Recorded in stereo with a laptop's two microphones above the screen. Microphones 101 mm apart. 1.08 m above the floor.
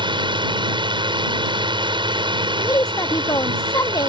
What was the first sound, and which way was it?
A drone, 50° right (ahead or behind).